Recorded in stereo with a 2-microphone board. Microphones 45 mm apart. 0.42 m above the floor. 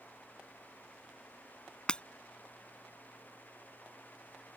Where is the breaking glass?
20° left (ahead or behind).